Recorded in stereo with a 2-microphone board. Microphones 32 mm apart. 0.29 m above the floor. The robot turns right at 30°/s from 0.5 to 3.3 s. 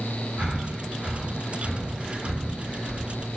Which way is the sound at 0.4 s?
60° right (ahead or behind).